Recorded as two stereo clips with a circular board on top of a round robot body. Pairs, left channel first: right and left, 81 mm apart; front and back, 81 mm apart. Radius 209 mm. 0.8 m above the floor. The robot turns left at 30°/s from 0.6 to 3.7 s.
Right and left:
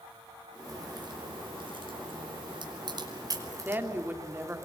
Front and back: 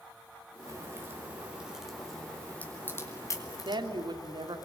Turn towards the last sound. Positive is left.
turn(degrees=155)